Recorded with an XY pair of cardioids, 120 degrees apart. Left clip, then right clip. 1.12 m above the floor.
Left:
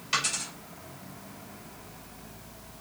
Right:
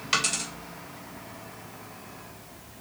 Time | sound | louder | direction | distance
0.1 | a dropped coin | right 3 dB | 45° right | 2.5 m